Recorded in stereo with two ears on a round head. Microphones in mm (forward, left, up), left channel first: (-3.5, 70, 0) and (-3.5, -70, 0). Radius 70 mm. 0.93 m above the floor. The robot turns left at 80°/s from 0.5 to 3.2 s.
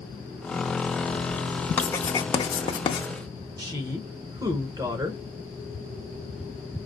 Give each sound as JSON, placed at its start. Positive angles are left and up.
{"t": 1.8, "sound": "writing", "side_deg": 10, "distance_m": 0.5}
{"t": 3.6, "sound": "a woman speaking", "side_deg": -25, "distance_m": 0.7}